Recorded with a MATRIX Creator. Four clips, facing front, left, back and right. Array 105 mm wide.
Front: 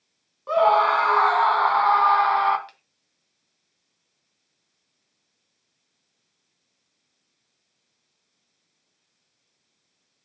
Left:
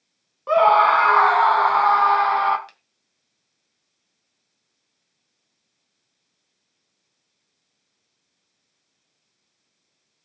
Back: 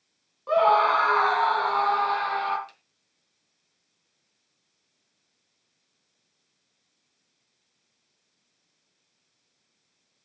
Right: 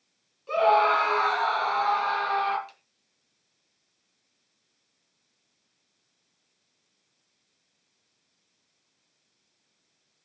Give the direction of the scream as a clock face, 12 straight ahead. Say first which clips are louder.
Left 6 dB, front 2 dB; 9 o'clock.